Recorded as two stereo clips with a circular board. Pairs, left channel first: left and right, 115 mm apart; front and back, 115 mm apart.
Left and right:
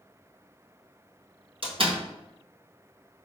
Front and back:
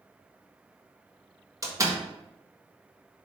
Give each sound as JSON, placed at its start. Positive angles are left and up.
{"t": 1.6, "sound": "a door slam", "azimuth_deg": -120, "distance_m": 1.6}